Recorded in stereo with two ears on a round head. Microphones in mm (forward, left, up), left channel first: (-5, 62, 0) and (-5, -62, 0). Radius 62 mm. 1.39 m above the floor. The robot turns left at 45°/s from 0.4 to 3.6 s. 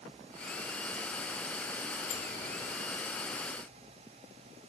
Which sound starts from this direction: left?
A sliding door, at 2.1 s.